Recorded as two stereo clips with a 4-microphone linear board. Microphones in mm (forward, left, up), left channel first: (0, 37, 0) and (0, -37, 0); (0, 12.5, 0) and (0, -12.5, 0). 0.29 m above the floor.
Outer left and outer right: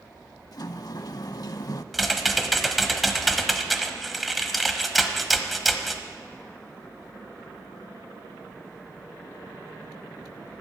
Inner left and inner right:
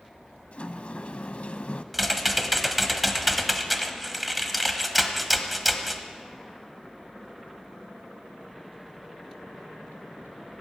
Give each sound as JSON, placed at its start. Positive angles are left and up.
{"t": 0.5, "sound": "a sliding door", "side_deg": 60, "distance_m": 0.5}
{"t": 1.9, "sound": "typing on a keyboard", "side_deg": 0, "distance_m": 1.1}